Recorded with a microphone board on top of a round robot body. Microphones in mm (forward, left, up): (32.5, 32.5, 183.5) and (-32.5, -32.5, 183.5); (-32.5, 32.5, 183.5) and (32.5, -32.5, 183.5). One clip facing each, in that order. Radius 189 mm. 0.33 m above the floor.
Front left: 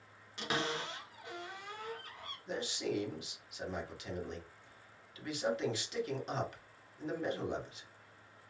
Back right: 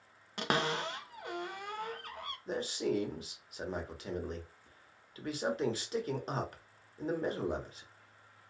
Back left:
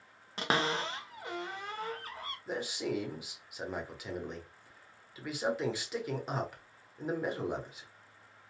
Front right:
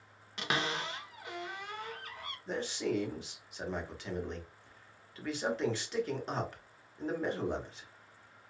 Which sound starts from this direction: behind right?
A man speaking, at 2.5 s.